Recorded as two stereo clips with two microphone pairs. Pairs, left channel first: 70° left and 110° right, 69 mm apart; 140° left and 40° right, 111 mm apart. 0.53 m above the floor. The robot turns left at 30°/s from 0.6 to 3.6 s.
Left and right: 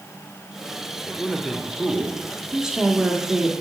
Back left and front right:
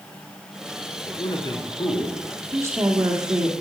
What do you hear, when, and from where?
1.0 s a man speaking: 170° left, 1.3 m; by 2.4 s 130° left, 1.3 m
2.5 s a woman speaking: 40° right, 1.3 m; by 3.5 s 70° right, 1.3 m